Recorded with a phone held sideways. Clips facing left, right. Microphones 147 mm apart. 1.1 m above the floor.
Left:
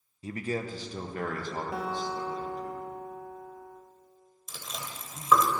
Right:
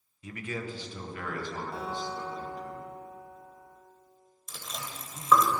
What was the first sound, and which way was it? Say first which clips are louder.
A man speaking: left 4 dB; 30° left (ahead or behind).